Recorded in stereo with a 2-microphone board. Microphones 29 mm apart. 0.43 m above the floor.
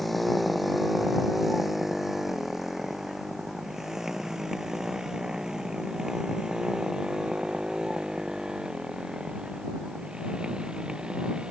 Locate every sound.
0.0 s a motorcycle: centre (ahead or behind); by 11.5 s 35° right (ahead or behind)